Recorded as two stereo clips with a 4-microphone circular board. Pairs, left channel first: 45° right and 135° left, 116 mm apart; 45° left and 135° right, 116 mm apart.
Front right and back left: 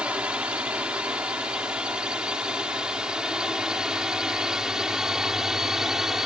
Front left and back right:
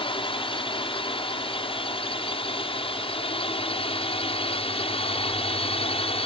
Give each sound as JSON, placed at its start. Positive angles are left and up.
{"t": 0.0, "sound": "a drone", "azimuth_deg": 55}